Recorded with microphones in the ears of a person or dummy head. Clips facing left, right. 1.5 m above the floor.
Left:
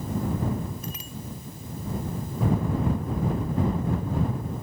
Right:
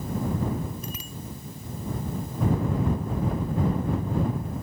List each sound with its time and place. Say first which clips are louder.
0.8 s a bicycle bell: even; 80° right